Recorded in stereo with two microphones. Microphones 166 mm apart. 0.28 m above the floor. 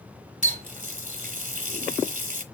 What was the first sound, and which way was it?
A running tap, 50° right (ahead or behind).